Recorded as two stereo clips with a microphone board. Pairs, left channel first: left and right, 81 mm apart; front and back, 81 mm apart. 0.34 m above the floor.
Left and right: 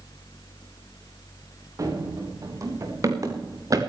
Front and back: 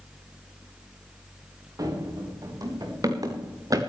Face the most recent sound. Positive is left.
turn(degrees=-135)